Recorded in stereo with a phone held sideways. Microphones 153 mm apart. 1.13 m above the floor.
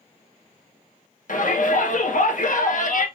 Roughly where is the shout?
Left.